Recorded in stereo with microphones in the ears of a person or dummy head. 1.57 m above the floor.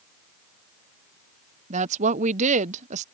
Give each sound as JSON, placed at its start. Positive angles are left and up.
{"t": 1.7, "sound": "a woman speaking", "side_deg": -40}